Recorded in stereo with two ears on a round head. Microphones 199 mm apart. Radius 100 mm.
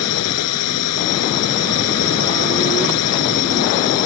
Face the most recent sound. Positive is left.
turn(degrees=85)